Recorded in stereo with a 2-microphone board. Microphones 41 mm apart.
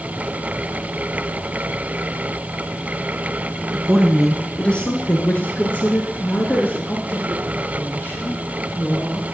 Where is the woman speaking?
10° right (ahead or behind), 1.4 m; by 9.3 s 60° left (ahead or behind), 6.5 m.